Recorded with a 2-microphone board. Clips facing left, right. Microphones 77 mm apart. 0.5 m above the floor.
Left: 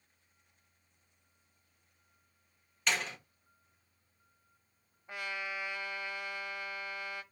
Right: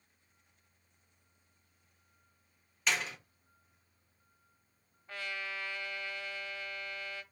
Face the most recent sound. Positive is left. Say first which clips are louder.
# left 1 dB
turn(degrees=15)  # may be behind; listen again after turning